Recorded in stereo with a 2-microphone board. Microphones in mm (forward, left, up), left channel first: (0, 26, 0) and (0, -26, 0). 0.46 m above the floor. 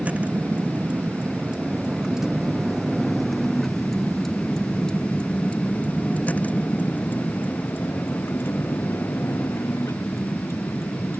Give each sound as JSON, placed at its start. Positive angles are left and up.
{"t": 0.0, "sound": "a vehicle", "side_deg": -30}